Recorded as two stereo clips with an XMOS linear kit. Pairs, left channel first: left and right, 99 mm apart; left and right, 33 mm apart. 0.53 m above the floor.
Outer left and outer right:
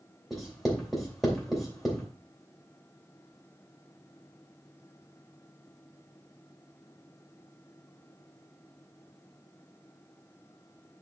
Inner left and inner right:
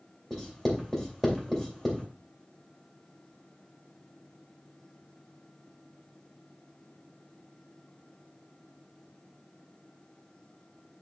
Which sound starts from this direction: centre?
Writing, at 0.3 s.